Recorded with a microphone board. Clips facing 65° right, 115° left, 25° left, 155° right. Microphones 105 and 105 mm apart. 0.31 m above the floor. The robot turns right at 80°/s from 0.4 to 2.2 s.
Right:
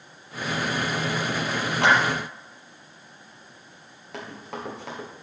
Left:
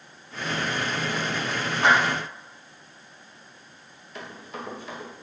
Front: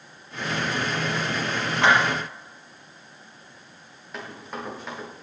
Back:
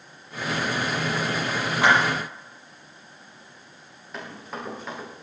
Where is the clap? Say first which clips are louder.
Even, even; 80° right, 6.5 m; by 1.9 s 65° right, 6.5 m.